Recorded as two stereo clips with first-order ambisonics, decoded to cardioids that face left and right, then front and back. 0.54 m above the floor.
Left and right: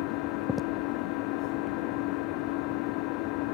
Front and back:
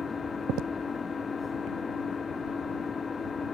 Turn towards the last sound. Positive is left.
turn(degrees=70)